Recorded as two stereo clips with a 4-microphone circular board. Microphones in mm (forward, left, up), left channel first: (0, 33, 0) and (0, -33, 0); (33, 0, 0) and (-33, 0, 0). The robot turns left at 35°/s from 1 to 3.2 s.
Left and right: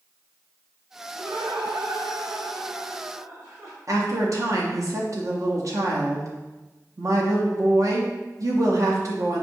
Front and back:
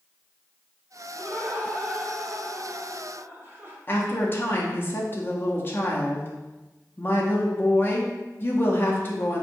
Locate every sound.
1.1 s laughter: 55° right, 1.3 m; by 3.8 s 125° right, 1.3 m
3.9 s a woman speaking: 60° right, 0.7 m